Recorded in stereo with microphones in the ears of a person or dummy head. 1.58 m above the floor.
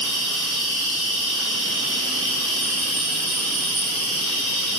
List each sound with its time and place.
0.0 s an insect: 5° left (ahead or behind), 1.2 m